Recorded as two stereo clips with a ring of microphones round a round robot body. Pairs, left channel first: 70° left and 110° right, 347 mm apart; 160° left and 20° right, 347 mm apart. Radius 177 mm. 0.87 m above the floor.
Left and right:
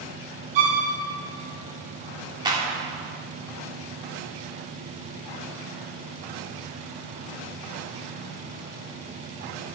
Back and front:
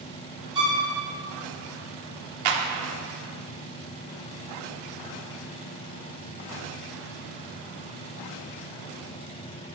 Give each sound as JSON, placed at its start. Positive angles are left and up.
{"t": 0.6, "sound": "a violin", "azimuth_deg": -100, "distance_m": 3.0}
{"t": 2.5, "sound": "a clap", "azimuth_deg": -35, "distance_m": 1.6}